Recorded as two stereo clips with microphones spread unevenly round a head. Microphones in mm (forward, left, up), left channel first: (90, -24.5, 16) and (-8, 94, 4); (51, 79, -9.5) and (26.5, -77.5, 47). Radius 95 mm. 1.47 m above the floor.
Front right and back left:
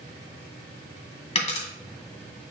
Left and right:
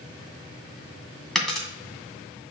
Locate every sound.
1.4 s a dropped coin: 20° right, 2 m